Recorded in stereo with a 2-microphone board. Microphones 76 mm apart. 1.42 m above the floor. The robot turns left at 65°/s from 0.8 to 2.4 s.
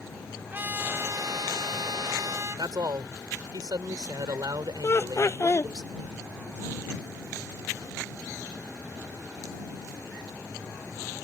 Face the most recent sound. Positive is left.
turn(degrees=35)  # may be behind; listen again after turning